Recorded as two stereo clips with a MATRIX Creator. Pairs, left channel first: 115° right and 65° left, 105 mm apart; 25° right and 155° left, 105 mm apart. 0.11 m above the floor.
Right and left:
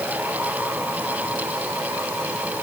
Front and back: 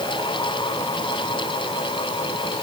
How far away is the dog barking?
No dog barking in this recording.